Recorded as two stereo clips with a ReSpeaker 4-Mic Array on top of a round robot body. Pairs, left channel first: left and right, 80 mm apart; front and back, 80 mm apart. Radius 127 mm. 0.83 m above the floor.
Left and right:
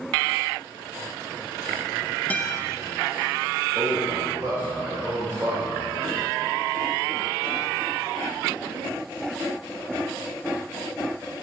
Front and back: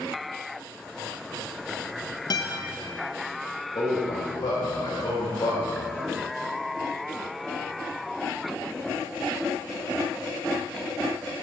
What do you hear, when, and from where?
2.3 s a guitar: 20° left, 0.9 m
3.8 s a man speaking: 30° right, 1.9 m